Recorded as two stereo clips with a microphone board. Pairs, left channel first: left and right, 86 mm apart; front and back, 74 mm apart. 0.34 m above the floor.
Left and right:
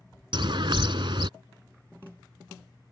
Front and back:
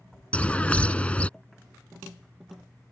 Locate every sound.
0.3 s a bird: 75° right